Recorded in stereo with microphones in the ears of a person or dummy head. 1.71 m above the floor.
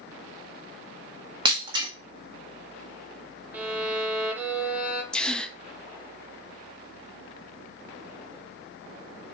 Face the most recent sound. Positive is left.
turn(degrees=5)  # may be behind; listen again after turning